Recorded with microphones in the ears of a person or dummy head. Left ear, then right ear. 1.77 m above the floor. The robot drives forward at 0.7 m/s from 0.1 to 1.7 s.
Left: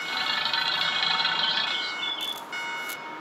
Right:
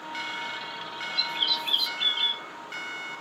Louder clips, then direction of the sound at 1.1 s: Left 2 dB; 60° right (ahead or behind).